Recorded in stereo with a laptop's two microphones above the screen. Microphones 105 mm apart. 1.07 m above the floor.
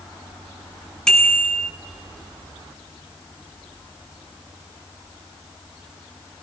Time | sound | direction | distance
1.1 | a bicycle bell | 5° left (ahead or behind) | 8.5 m